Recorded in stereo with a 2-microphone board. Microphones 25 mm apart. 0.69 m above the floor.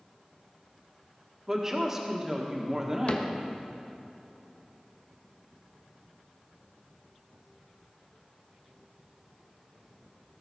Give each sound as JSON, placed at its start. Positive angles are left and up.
{"t": 1.5, "sound": "a woman speaking", "side_deg": -20, "distance_m": 1.4}
{"t": 3.1, "sound": "a cupboard door", "side_deg": 60, "distance_m": 1.0}